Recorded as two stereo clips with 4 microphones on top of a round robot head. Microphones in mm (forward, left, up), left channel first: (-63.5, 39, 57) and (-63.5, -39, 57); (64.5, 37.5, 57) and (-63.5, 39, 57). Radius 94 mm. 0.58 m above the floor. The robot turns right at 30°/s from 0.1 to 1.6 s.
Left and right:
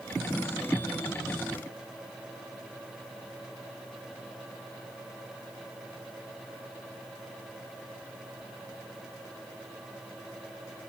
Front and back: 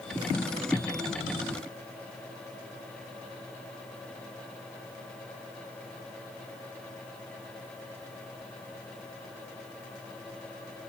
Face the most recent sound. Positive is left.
No sound to turn to.